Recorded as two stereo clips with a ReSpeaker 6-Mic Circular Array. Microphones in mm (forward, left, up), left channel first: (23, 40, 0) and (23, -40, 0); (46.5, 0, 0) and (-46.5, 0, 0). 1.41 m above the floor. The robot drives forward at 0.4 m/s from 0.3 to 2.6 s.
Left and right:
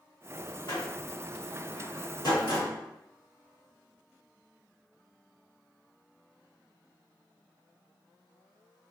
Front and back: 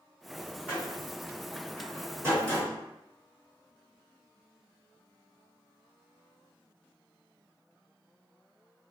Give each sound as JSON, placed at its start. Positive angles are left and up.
{"t": 0.7, "sound": "a door slam", "azimuth_deg": 105, "distance_m": 2.0}